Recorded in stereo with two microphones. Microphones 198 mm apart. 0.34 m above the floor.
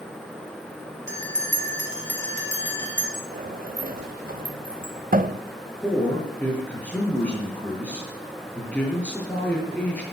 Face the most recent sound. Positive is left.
turn(degrees=10)  # may be behind; listen again after turning